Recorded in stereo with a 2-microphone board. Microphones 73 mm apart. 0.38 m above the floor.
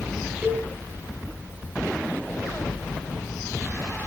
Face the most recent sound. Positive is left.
turn(degrees=-25)  # may be behind; listen again after turning